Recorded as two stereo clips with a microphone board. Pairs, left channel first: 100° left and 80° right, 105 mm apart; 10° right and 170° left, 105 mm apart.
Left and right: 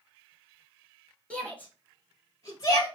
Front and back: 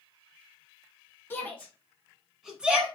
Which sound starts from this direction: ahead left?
A shout, at 1.3 s.